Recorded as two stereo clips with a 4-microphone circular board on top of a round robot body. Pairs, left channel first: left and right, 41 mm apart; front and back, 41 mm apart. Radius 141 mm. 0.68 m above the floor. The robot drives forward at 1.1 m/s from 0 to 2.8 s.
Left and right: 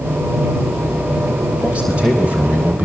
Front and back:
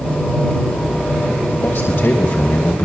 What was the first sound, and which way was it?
A man speaking, 30° right.